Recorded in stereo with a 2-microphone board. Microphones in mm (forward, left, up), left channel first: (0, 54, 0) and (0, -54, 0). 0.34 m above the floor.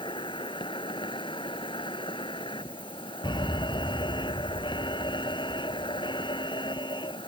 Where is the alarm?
50° left (ahead or behind).